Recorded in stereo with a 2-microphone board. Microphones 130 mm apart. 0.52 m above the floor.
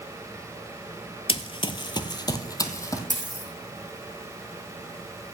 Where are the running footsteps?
45° left (ahead or behind), 0.6 m; by 3.0 s 25° left (ahead or behind), 1.2 m.